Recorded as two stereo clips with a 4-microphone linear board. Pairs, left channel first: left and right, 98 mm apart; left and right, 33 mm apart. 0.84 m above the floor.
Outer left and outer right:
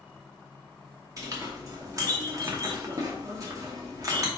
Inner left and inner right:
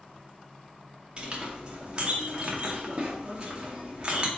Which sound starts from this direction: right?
A clink, at 1.2 s.